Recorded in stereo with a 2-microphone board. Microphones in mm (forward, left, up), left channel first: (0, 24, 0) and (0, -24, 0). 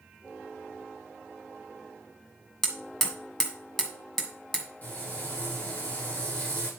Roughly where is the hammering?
Centre.